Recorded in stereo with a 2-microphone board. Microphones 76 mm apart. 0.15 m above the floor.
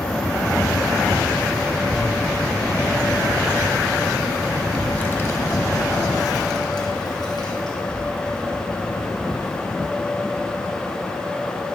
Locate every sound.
1.8 s a child speaking: 65° right (ahead or behind), 1.6 m; by 11.1 s 75° left (ahead or behind), 4 m